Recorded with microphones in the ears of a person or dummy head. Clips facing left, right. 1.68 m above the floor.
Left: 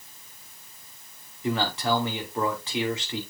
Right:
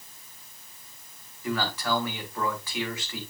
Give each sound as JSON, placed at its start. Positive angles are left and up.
{"t": 1.4, "sound": "a man speaking", "side_deg": 25, "distance_m": 3.0}